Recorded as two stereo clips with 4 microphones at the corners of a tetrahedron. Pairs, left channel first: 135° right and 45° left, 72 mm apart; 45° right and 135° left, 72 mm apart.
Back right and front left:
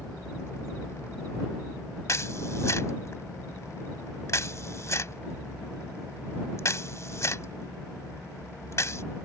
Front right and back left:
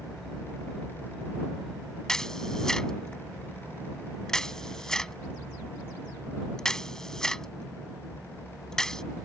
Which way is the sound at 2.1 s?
125° right.